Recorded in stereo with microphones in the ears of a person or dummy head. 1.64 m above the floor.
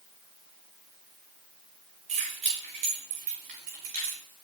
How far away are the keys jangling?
About 4.5 m.